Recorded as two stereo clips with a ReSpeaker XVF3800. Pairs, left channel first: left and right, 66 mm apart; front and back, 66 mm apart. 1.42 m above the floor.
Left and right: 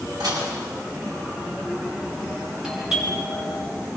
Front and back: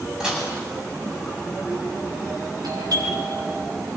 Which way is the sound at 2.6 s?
170° right.